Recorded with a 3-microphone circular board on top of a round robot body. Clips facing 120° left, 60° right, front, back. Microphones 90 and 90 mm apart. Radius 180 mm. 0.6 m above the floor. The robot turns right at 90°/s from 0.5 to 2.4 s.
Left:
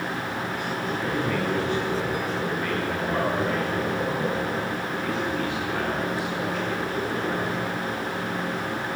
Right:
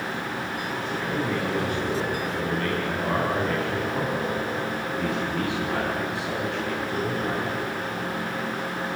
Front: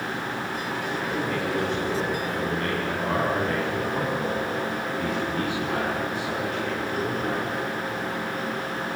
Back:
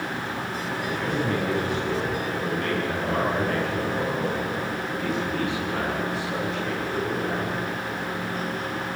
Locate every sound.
0.9 s a man speaking: straight behind, 6.5 m; by 7.5 s 40° right, 6.5 m